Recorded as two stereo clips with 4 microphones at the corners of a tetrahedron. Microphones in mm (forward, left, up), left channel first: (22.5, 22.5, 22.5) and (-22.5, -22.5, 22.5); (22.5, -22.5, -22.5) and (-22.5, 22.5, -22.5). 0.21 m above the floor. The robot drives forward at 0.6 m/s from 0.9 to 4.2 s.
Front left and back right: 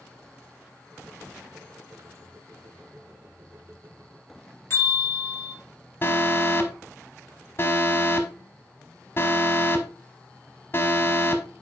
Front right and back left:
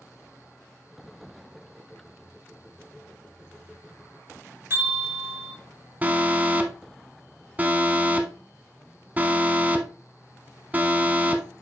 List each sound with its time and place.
4.7 s a bell: 85° left, 4 m
6.0 s an alarm: 80° left, 0.9 m